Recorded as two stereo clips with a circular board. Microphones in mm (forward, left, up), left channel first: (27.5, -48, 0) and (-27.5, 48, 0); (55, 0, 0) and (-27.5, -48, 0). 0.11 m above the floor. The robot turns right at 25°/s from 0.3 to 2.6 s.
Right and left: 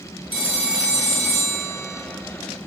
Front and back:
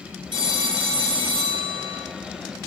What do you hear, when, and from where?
0.3 s a phone ringing: 170° right, 1.5 m; by 2.0 s 130° right, 1.5 m